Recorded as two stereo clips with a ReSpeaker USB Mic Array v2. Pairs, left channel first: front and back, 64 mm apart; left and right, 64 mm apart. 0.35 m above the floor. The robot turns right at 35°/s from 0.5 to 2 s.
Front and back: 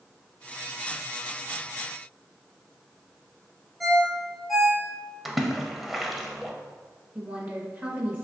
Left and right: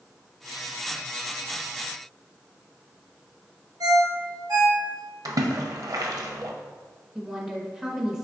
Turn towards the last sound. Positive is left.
turn(degrees=-160)